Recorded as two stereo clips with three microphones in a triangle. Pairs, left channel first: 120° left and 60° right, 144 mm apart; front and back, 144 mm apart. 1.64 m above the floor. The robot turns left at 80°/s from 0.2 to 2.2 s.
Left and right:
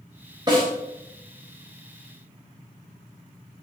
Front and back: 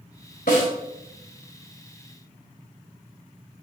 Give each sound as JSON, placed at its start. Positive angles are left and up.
{"t": 0.5, "sound": "a snare drum", "azimuth_deg": 0, "distance_m": 3.5}